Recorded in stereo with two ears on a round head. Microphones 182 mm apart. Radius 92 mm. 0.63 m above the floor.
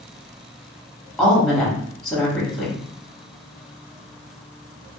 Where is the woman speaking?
Centre (ahead or behind), 0.8 m.